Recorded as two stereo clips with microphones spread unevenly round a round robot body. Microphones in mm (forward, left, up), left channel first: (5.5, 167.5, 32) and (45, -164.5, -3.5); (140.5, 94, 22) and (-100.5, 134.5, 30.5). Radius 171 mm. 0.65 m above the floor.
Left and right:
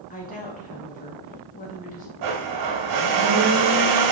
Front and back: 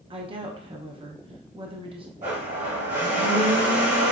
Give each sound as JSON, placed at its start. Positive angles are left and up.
{"t": 0.1, "sound": "a woman speaking", "azimuth_deg": 140, "distance_m": 0.6}
{"t": 2.2, "sound": "a blender", "azimuth_deg": -120, "distance_m": 0.8}